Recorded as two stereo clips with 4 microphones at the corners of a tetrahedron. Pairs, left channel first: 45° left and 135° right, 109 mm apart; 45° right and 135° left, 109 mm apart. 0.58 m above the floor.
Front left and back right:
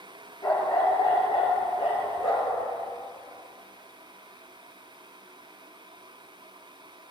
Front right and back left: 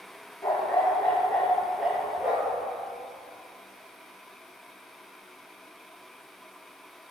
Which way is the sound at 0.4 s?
10° left.